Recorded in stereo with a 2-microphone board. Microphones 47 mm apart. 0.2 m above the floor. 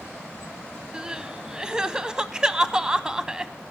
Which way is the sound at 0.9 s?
20° right (ahead or behind).